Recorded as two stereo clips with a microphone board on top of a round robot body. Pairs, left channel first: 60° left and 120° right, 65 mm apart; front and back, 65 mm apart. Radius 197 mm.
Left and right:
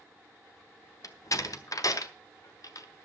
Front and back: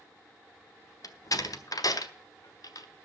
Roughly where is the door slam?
Ahead left.